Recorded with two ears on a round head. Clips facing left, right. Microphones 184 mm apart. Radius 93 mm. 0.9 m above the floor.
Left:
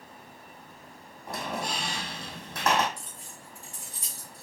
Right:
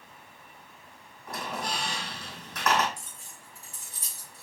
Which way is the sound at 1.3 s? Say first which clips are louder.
Left 1 dB; 25° left (ahead or behind).